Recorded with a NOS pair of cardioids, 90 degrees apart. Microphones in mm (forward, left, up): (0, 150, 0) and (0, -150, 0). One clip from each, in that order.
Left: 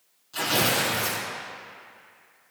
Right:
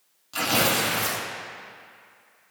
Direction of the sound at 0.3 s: 50° right.